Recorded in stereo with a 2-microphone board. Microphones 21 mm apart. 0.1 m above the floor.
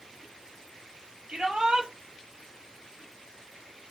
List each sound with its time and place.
1.3 s a shout: 55° right (ahead or behind), 2 m